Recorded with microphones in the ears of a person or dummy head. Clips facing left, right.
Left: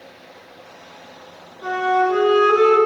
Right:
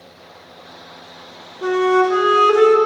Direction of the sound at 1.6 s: 65° right (ahead or behind).